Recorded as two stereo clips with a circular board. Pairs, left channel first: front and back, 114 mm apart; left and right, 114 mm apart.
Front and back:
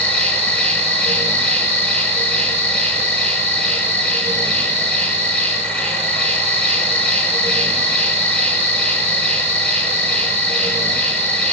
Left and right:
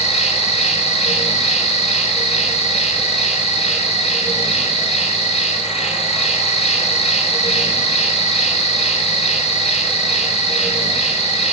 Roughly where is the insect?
Left.